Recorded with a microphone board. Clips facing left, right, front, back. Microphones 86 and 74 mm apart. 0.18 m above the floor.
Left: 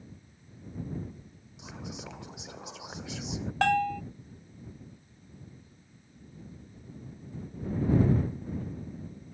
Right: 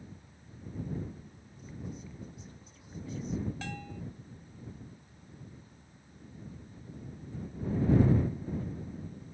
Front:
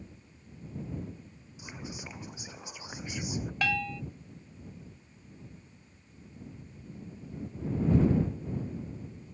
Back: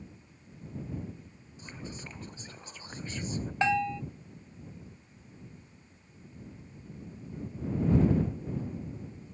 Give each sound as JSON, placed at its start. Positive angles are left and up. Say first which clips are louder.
{"t": 1.6, "sound": "whispering", "louder": "left 2 dB, front 1 dB", "azimuth_deg": 80}
{"t": 3.6, "sound": "a bell", "louder": "left 17 dB, back 5 dB", "azimuth_deg": 110}